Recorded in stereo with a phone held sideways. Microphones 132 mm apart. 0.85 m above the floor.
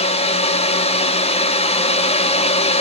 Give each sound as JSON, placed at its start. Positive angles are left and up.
{"t": 0.0, "sound": "a fan", "side_deg": 50, "distance_m": 0.7}